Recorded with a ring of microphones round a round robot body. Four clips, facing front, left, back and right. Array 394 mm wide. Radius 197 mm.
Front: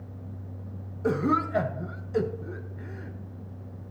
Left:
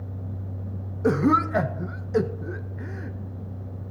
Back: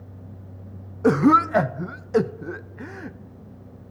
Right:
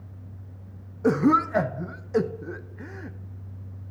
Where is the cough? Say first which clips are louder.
Even, back 9 dB; straight behind, 0.5 m.